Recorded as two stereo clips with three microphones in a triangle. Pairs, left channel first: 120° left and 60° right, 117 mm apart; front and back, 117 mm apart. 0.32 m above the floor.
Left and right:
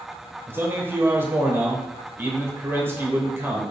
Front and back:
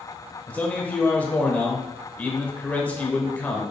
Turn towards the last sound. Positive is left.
turn(degrees=-45)